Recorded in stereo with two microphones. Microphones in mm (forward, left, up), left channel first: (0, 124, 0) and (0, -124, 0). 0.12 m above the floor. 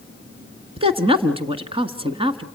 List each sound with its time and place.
0.8 s a woman speaking: 20° right (ahead or behind), 1.3 m